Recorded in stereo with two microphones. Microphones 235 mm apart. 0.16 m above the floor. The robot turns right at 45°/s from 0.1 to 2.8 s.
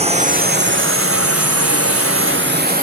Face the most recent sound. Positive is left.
turn(degrees=-35)  # may be behind; listen again after turning